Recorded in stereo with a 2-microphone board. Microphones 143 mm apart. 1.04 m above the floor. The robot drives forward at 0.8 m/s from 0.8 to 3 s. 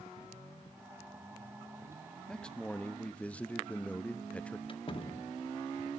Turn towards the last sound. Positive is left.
turn(degrees=35)  # may be behind; listen again after turning